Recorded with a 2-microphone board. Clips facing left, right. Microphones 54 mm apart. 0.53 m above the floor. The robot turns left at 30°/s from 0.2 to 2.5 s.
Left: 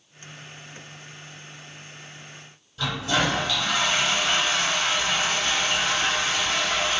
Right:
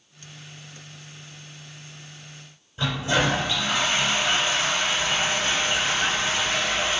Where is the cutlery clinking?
No cutlery clinking in this recording.